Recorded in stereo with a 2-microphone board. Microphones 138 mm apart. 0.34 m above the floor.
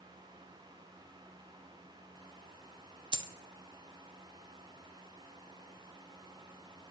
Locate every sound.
3.1 s a dropped coin: 35° right (ahead or behind), 0.7 m